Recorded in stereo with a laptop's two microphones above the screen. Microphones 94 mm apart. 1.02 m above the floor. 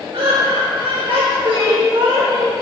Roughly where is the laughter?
Right.